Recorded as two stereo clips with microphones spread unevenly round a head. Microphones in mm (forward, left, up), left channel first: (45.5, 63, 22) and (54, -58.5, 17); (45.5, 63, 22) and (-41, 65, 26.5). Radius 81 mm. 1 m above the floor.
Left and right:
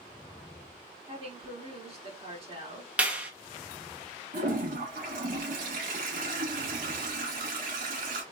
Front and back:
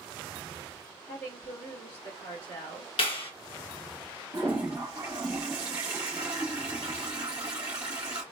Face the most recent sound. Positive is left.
turn(degrees=-110)